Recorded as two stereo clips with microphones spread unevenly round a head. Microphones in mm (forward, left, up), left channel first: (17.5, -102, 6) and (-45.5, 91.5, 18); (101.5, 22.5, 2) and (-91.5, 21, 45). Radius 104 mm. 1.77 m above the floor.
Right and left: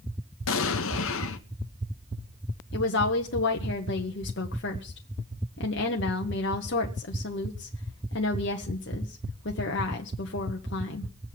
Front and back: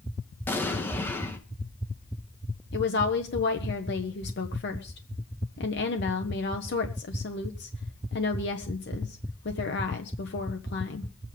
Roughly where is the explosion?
Right.